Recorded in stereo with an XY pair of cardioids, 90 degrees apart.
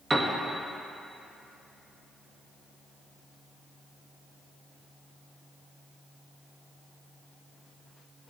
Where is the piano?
25° right, 1.8 m.